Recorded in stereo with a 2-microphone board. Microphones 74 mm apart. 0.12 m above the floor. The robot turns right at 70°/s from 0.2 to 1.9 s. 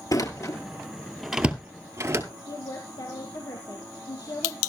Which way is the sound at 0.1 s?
55° left (ahead or behind).